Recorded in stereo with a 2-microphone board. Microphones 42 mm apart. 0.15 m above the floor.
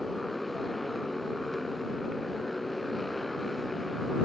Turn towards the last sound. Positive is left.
turn(degrees=5)  # may be behind; listen again after turning